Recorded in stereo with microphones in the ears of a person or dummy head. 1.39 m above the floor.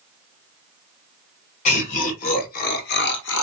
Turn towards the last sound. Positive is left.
turn(degrees=75)  # may be behind; listen again after turning